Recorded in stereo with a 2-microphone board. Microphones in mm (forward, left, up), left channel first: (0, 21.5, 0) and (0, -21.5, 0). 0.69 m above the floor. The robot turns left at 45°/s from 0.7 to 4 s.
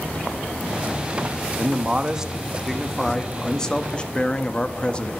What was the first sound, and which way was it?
A man speaking, 25° right (ahead or behind).